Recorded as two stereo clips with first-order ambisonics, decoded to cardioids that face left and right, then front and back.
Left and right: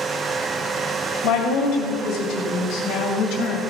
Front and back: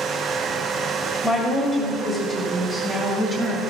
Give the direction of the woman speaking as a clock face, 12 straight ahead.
10 o'clock.